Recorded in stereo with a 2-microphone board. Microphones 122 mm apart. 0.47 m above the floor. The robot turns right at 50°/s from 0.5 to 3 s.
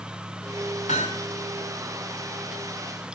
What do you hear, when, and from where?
0.9 s hammering: 80° left, 6 m; by 1.3 s 70° left (ahead or behind), 6 m